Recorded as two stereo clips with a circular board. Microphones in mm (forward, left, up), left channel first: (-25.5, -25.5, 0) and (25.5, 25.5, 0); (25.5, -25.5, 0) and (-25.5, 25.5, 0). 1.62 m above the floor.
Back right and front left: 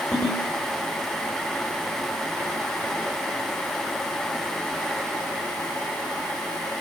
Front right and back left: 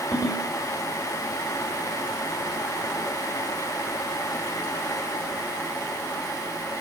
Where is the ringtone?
70° right, 4.5 m.